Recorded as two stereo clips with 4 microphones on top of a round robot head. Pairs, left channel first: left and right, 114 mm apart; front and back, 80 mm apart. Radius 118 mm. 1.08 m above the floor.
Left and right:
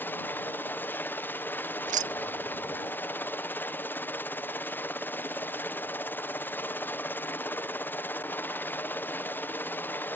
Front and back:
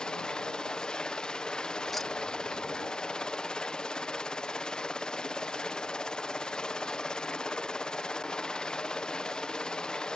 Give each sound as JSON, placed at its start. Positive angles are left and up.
{"t": 0.0, "sound": "a helicopter", "azimuth_deg": 60}
{"t": 1.9, "sound": "keys jangling", "azimuth_deg": -90}